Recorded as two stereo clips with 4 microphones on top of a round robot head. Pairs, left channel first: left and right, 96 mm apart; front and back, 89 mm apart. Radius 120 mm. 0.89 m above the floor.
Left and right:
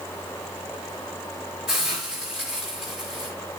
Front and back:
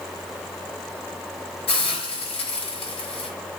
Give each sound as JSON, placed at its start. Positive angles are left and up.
{"t": 1.7, "sound": "a hiss", "azimuth_deg": -5, "distance_m": 6.0}